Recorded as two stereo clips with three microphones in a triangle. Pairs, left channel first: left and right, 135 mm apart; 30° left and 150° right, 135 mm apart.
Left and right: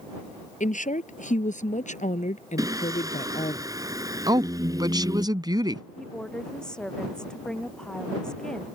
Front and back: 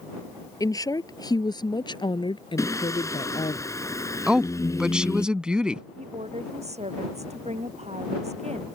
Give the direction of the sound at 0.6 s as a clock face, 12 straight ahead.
9 o'clock.